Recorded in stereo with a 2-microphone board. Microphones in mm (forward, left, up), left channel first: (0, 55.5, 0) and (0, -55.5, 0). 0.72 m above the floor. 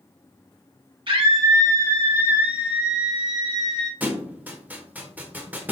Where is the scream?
50° right (ahead or behind), 1.2 m; by 3.9 s 5° left (ahead or behind), 2.5 m.